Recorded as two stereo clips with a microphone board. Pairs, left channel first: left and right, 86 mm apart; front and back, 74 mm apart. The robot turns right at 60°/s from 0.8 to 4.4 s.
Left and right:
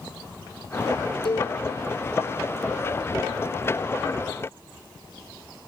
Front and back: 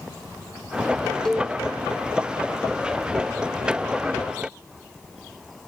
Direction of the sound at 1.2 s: 80° left.